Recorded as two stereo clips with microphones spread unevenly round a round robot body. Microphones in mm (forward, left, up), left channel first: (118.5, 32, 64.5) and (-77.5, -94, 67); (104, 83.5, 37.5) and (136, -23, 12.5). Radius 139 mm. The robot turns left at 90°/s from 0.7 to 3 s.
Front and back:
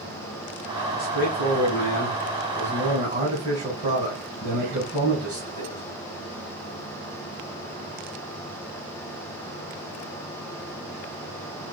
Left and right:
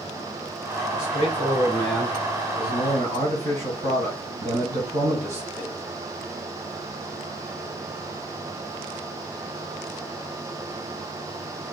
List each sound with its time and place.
0.9 s a man speaking: 100° left, 4.5 m; by 5.8 s 85° right, 4.5 m